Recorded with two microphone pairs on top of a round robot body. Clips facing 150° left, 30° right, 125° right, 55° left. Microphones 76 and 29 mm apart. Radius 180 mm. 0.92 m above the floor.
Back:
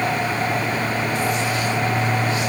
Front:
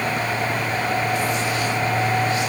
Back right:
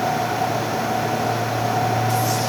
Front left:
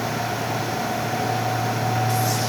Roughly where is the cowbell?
I don't hear a cowbell.